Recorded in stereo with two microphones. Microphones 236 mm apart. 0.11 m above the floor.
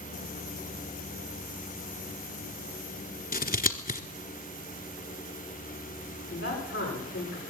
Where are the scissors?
35° left (ahead or behind), 1.0 m.